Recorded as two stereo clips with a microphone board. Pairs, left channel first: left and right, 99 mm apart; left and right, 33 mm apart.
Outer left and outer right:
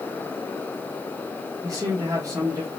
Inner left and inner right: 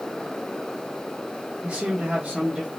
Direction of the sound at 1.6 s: 35° right (ahead or behind).